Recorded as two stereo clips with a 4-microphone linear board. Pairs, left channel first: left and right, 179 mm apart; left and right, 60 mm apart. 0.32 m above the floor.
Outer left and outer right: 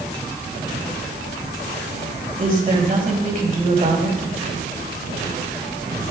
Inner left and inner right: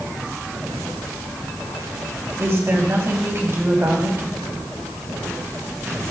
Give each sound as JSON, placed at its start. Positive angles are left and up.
{"t": 2.4, "sound": "a woman speaking", "side_deg": -50, "distance_m": 2.0}